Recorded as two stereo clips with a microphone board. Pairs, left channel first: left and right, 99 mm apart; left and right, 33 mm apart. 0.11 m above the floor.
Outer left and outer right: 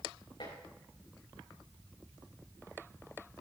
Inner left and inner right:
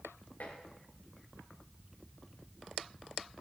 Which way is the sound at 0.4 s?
65° left (ahead or behind).